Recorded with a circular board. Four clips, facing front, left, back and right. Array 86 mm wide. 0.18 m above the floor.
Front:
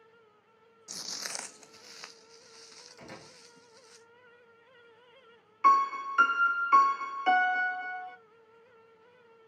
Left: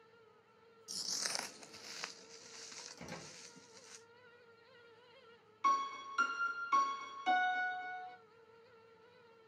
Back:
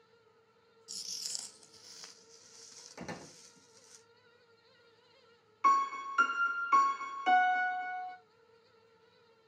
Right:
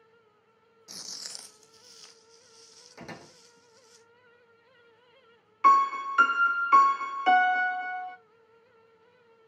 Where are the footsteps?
45° right, 0.5 m; by 4.0 s 70° left, 4.5 m.